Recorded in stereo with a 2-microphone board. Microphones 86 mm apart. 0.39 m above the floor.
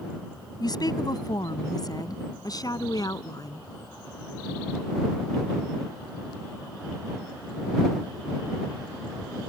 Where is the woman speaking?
55° left (ahead or behind); by 3.7 s 50° left (ahead or behind).